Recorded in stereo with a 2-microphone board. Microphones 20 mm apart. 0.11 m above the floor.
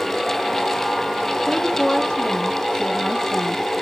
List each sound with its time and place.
1.5 s a woman speaking: 45° left (ahead or behind), 2.5 m; by 3.7 s 60° left (ahead or behind), 2.5 m